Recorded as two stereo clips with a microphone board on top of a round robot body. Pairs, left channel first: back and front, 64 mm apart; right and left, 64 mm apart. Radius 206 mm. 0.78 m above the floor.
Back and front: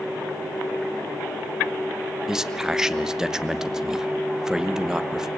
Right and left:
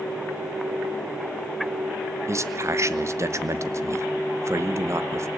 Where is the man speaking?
80° left, 1.3 m.